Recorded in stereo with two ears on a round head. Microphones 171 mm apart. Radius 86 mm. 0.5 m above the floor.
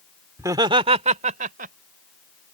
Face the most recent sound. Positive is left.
turn(degrees=-45)  # may be behind; listen again after turning